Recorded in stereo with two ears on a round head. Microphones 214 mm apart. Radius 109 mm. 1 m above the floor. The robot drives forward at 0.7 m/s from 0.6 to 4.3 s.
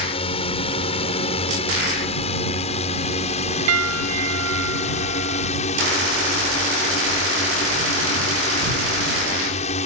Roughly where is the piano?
Right.